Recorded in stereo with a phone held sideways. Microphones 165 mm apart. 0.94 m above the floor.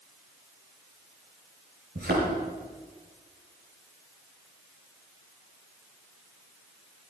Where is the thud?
80° right, 6 m.